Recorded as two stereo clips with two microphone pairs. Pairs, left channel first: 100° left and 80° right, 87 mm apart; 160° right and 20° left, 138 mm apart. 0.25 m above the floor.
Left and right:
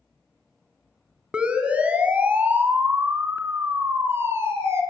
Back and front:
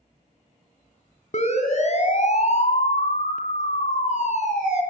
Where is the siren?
160° right, 3 m; by 4.8 s 140° right, 5 m.